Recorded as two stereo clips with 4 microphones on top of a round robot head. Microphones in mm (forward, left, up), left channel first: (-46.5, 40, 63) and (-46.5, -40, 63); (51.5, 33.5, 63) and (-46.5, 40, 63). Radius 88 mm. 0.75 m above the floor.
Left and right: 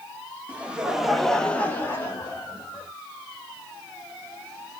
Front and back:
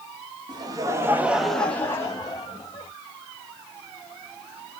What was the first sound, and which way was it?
Laughter, 160° right.